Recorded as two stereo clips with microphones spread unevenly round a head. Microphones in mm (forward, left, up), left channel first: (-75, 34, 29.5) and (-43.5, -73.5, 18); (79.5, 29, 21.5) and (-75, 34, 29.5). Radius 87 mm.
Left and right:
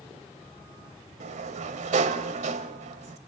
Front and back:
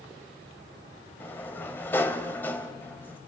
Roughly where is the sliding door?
Right.